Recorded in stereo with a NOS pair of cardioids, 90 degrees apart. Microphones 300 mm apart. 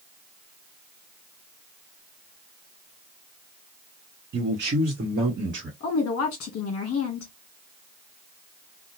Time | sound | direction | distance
4.3 | a man speaking | 40° right | 0.9 m
5.8 | a woman speaking | 50° left | 1.0 m